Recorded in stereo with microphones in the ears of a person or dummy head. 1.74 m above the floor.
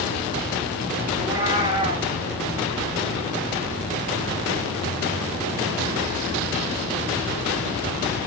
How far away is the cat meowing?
About 4 m.